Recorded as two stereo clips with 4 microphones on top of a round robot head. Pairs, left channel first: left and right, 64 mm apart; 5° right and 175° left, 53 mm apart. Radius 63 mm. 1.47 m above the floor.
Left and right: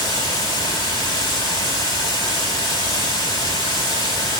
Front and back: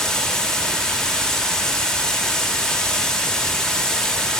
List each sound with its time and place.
0.0 s running water: 75° left, 1.7 m